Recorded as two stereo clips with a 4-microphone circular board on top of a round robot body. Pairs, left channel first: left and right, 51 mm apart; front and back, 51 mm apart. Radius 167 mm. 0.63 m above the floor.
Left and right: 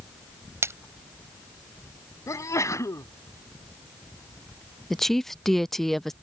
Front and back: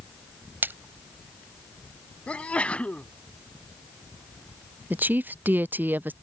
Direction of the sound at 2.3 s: 70° left.